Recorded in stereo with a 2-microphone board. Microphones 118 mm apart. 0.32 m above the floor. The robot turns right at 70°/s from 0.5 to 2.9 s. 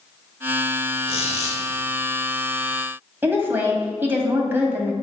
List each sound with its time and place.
1.1 s a squeak: 45° left, 2 m; by 1.6 s 85° left, 2 m
3.2 s a woman speaking: 15° right (ahead or behind), 1.6 m